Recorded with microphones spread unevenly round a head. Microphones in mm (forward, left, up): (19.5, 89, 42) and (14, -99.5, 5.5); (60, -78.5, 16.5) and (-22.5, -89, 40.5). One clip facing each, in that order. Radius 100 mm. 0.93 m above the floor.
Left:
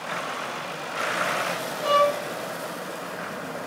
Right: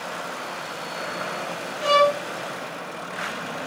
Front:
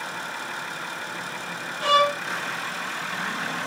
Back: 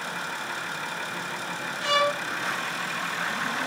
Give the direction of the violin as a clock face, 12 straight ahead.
1 o'clock.